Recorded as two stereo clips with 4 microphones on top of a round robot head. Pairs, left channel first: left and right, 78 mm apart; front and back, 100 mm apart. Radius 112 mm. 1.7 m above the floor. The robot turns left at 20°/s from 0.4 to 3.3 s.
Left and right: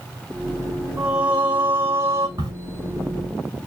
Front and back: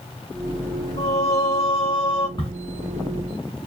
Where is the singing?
10° right, 1.9 m; by 2.3 s 35° right, 1.9 m.